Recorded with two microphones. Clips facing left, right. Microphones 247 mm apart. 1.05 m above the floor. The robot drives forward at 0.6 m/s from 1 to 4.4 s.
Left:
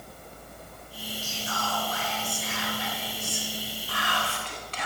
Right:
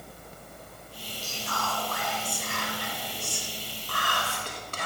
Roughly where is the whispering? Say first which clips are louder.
Right 1 dB; right.